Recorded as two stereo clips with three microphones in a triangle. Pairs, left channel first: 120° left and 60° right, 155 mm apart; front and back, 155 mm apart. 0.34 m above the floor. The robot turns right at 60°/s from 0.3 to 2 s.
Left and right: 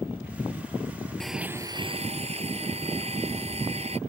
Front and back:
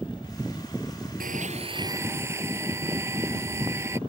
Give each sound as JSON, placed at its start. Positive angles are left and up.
{"t": 1.2, "sound": "a blender", "azimuth_deg": -155}